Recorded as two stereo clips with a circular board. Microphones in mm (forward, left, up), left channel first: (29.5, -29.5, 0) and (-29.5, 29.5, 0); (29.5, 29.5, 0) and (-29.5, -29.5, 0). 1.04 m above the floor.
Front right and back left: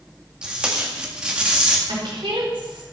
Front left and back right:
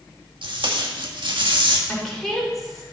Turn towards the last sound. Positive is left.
turn(degrees=130)